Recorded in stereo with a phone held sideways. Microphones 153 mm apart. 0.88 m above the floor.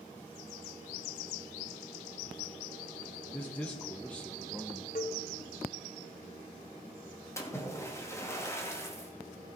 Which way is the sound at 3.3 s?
10° left (ahead or behind).